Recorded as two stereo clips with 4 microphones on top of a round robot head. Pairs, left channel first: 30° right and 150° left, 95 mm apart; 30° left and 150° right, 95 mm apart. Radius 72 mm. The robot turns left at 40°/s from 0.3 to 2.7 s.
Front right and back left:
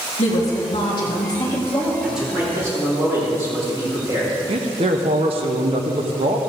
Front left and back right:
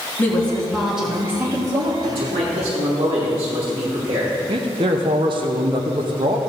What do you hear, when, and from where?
0.2 s a woman speaking: 40° right, 3.5 m; by 1.9 s 105° right, 3.5 m
2.0 s a man speaking: 125° right, 5.5 m; by 4.3 s 150° right, 5.5 m
4.5 s a man speaking: 175° left, 1.1 m